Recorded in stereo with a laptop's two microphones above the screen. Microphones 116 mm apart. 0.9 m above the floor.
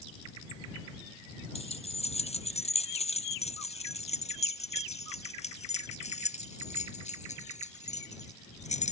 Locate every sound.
1.6 s keys jangling: 65° left (ahead or behind); by 8.9 s 85° left